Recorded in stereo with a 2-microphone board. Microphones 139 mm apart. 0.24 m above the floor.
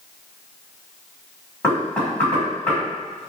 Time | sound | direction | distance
1.6 | knocking | 10° left (ahead or behind) | 1.4 m